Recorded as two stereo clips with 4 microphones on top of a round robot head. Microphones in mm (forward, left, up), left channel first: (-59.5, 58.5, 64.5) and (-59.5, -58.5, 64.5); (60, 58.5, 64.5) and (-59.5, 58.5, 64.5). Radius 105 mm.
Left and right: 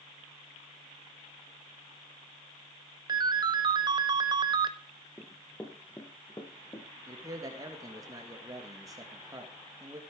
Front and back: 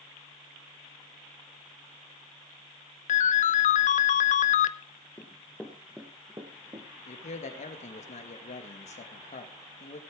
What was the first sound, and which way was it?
A ringtone, 30° right.